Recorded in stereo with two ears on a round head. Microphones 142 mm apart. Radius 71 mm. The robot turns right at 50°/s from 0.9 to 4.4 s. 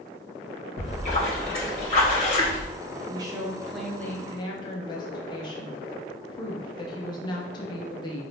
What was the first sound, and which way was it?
A splash, 50° left.